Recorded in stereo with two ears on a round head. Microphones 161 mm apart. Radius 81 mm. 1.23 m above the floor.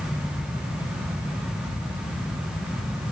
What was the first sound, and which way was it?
Only background noise.